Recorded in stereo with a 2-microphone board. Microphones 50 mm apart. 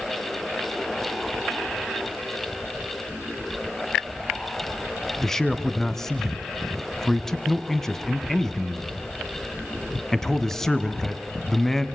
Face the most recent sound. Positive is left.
turn(degrees=5)  # may be behind; listen again after turning